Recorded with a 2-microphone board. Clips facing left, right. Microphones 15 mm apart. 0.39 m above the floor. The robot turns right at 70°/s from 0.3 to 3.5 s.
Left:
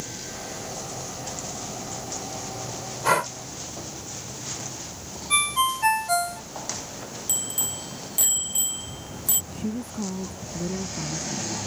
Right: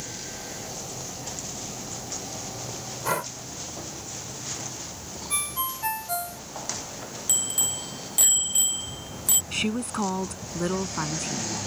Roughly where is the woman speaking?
Right.